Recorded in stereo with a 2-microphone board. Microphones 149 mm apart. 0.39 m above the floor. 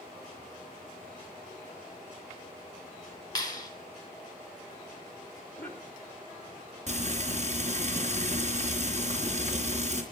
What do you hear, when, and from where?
3.4 s a clap: 25° left (ahead or behind), 3 m
5.5 s a cough: 15° left (ahead or behind), 4 m
6.9 s frying: 50° right (ahead or behind), 3.5 m